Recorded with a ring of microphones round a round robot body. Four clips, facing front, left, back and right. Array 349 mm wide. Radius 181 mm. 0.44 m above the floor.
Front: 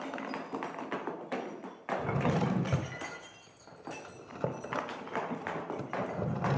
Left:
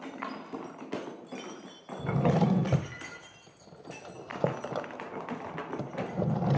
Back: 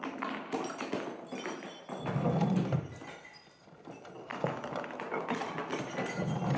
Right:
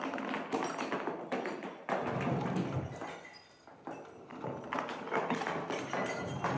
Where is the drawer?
75° left, 1.2 m.